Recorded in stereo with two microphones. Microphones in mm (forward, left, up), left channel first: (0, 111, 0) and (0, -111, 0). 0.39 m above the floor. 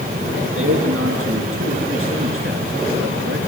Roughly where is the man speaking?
Right.